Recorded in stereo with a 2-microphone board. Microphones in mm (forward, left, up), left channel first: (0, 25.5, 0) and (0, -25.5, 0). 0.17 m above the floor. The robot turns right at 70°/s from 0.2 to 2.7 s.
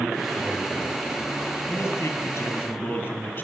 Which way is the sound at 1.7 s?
55° left.